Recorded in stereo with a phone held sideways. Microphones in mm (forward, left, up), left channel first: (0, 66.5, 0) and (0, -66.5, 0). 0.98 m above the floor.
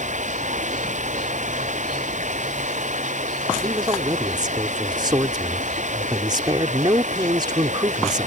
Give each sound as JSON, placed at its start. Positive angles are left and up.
{"t": 0.0, "sound": "running water", "side_deg": -65}
{"t": 3.6, "sound": "a man speaking", "side_deg": -35}